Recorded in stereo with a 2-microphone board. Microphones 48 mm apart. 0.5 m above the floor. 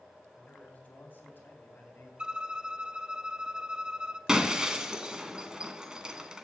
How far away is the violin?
About 0.7 m.